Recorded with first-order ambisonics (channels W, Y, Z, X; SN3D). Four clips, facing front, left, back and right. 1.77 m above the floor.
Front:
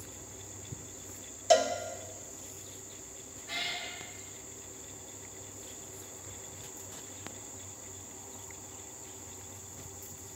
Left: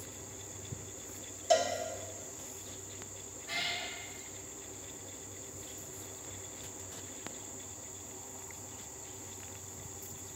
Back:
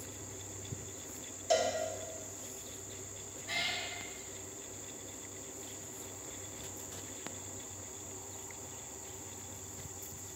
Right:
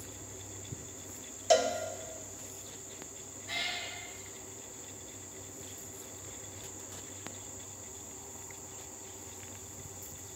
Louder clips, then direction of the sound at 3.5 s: Even, even; 155° right.